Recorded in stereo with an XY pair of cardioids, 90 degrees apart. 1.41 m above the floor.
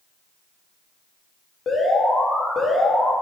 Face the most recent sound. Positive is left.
turn(degrees=50)